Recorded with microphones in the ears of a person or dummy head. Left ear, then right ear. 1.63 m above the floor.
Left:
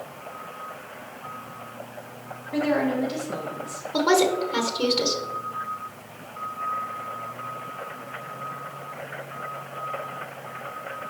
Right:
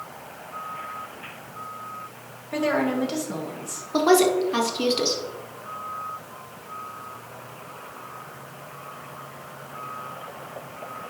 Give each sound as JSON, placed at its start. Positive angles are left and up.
{"t": 2.5, "sound": "a woman speaking", "side_deg": -80, "distance_m": 2.0}
{"t": 3.9, "sound": "a woman speaking", "side_deg": -10, "distance_m": 1.5}